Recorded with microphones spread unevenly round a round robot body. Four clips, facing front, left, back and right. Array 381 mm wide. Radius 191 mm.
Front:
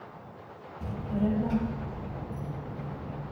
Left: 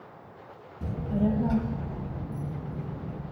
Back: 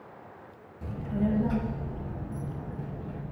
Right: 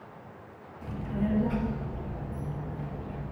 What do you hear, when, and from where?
0.8 s a child speaking: 75° left, 0.8 m; by 3.2 s 105° left, 2.5 m